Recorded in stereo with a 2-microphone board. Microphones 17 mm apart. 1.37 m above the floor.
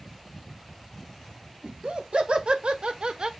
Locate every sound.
1.6 s laughter: 75° right (ahead or behind), 2 m; by 3.3 s 55° right (ahead or behind), 1.1 m